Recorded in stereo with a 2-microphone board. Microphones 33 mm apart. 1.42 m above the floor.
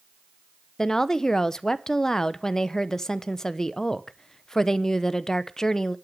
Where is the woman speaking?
15° left (ahead or behind), 0.6 m.